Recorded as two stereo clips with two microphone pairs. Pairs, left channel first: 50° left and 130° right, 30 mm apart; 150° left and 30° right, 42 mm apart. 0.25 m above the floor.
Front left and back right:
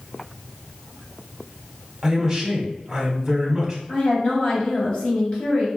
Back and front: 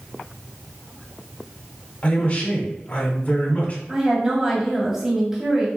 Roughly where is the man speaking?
Behind.